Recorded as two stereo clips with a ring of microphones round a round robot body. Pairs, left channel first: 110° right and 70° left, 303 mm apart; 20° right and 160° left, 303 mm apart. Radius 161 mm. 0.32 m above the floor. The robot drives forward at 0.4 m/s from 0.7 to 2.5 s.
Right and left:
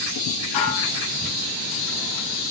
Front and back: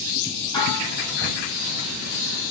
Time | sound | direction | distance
0.5 | dishes clattering | 100° right | 9.5 m